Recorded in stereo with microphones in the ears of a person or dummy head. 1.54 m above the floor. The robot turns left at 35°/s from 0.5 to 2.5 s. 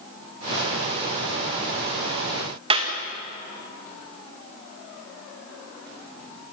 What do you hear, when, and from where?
2.7 s a clap: 25° right (ahead or behind), 1.9 m